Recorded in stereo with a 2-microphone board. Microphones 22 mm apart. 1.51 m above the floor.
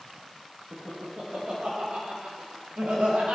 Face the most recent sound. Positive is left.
turn(degrees=-85)